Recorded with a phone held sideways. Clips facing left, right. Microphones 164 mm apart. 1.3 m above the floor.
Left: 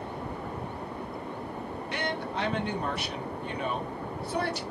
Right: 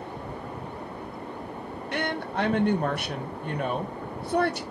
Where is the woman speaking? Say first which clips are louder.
Right 4 dB; 55° right (ahead or behind), 0.8 m.